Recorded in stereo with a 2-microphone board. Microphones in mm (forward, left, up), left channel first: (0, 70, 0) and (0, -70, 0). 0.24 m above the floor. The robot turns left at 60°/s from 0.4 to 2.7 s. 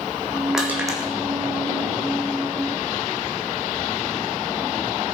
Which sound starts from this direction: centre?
Crushing, at 0.5 s.